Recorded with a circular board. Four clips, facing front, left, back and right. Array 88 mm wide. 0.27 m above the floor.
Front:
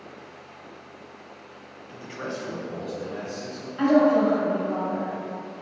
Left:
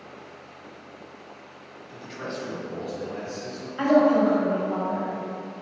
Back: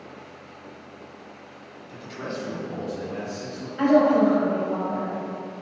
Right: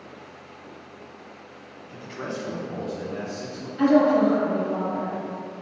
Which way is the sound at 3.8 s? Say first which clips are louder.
Right 1 dB, back 1 dB; 90° left.